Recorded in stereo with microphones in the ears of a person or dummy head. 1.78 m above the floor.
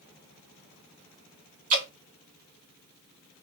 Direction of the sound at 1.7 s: 45° right (ahead or behind).